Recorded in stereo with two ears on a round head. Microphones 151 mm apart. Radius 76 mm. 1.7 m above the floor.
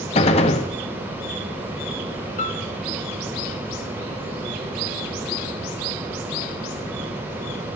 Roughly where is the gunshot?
Left.